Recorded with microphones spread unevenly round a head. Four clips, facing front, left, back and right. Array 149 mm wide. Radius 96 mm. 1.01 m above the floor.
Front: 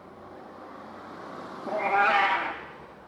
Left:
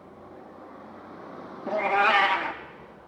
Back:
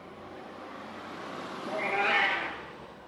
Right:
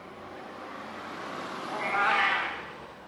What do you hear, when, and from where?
1.7 s a cat meowing: 125° left, 0.6 m